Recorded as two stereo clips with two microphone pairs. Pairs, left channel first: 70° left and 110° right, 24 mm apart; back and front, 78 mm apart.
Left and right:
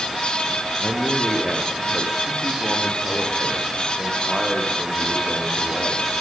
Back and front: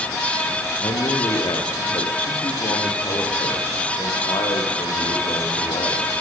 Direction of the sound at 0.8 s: 170° right.